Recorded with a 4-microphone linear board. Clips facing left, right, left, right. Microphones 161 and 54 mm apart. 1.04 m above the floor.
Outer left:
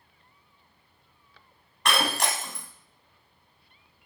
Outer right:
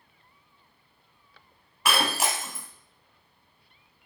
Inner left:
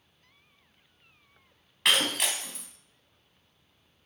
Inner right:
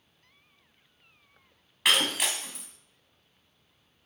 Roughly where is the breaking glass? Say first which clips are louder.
Even, even; centre.